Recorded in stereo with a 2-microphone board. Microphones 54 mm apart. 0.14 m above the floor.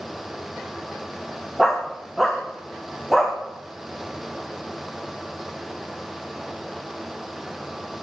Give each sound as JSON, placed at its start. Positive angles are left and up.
{"t": 1.6, "sound": "a dog barking", "side_deg": 0, "distance_m": 3.5}